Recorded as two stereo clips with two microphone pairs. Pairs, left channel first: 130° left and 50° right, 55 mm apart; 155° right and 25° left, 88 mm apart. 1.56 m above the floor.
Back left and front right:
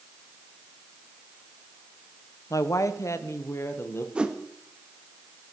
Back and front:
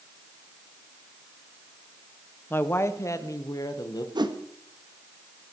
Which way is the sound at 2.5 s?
140° left.